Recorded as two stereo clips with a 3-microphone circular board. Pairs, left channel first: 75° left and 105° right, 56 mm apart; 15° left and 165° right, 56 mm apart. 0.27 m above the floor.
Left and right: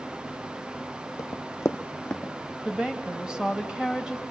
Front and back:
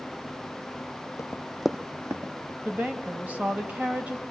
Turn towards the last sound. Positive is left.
turn(degrees=-165)